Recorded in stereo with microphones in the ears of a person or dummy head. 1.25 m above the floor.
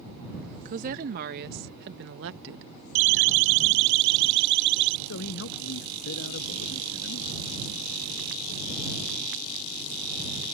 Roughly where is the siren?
Right.